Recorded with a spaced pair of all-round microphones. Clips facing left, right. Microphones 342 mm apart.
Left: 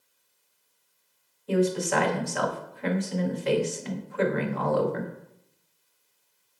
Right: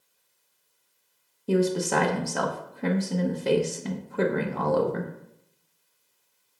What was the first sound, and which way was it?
A woman speaking, 50° right (ahead or behind).